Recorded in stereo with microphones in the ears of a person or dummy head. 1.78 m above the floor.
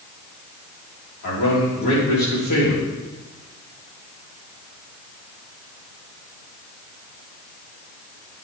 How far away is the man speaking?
About 4 m.